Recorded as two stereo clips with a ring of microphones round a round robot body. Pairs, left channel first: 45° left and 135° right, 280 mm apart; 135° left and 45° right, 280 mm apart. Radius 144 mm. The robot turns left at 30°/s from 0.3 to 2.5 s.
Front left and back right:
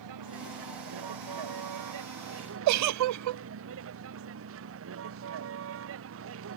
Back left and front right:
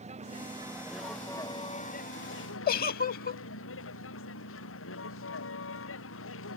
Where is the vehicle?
115° right; by 6.6 s straight behind.